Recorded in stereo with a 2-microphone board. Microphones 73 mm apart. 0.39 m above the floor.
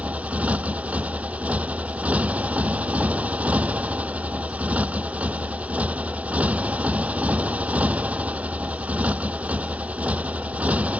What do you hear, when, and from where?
0.0 s a motorcycle: 20° right (ahead or behind)